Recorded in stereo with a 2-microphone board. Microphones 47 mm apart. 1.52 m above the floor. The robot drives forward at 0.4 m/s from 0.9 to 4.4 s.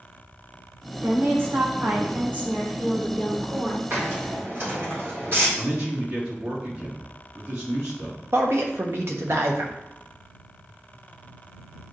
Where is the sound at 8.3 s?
60° right (ahead or behind), 1.2 m.